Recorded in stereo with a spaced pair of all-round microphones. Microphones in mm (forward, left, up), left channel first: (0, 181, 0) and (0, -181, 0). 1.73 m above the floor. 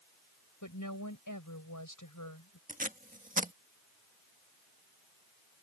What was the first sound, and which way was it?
A woman speaking, 55° left (ahead or behind).